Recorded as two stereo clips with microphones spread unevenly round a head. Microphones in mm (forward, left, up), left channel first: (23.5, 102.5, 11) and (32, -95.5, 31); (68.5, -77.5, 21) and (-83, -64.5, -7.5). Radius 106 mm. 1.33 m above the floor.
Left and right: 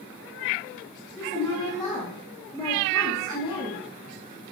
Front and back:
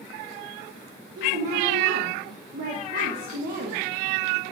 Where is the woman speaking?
165° left, 1.9 m.